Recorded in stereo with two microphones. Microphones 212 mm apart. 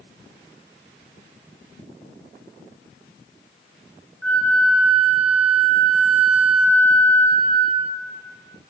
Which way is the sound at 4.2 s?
5° left (ahead or behind).